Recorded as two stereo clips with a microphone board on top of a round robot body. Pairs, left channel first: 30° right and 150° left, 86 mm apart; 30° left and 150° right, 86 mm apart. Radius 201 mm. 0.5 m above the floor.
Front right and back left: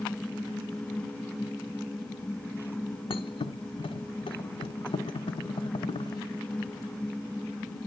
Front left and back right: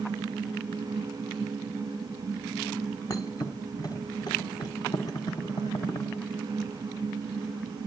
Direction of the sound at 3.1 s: 15° right.